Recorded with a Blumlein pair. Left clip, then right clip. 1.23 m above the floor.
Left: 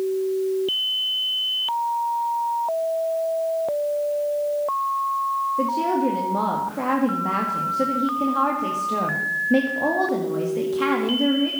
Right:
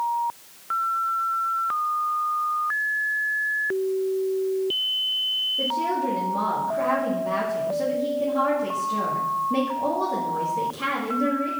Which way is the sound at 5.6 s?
70° left.